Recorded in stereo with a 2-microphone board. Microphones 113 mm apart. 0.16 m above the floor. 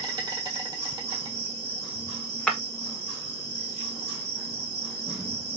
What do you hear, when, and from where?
0.0 s an insect: 40° right (ahead or behind), 1.2 m
2.5 s breaking glass: 10° left (ahead or behind), 0.8 m